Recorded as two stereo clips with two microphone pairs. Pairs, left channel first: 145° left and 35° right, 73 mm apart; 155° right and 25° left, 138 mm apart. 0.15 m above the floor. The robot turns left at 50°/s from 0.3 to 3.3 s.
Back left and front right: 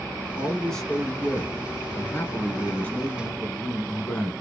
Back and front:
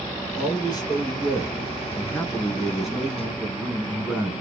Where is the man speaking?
130° right, 1.1 m; by 4.3 s 85° left, 1.1 m.